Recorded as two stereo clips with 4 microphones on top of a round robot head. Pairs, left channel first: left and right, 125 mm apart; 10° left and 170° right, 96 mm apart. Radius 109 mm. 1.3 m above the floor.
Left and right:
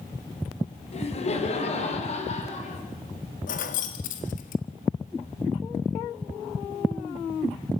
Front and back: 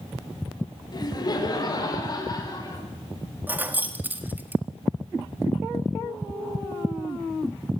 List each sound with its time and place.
0.9 s laughter: 55° left, 5 m; by 2.8 s 60° left, 6.5 m
3.5 s keys jangling: 115° left, 1.7 m